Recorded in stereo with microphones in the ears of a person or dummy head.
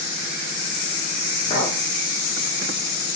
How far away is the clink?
About 1.4 m.